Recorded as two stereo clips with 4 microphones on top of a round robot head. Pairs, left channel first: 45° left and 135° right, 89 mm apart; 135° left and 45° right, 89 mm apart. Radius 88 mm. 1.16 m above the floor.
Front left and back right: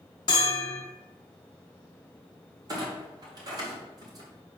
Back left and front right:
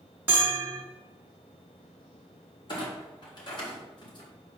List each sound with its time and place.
0.3 s a bell: 20° left, 0.7 m
2.7 s a clunk: 175° left, 2 m